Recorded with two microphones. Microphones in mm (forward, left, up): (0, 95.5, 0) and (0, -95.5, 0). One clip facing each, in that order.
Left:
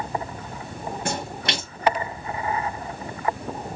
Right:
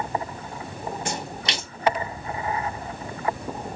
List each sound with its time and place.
1.1 s a splash: 55° left (ahead or behind), 3.5 m